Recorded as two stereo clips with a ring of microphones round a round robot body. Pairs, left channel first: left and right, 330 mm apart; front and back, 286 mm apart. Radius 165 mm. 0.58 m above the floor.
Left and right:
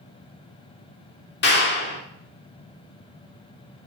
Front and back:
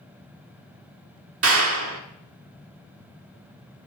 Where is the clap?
145° left, 1.3 m.